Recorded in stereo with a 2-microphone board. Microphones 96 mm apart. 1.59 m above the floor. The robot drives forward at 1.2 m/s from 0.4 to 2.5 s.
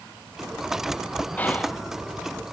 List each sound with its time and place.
1.4 s whispering: 15° left (ahead or behind), 0.6 m; by 1.9 s 10° left (ahead or behind), 1.1 m